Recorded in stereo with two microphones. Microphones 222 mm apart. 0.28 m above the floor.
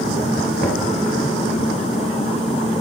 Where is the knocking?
40° left (ahead or behind), 4.5 m.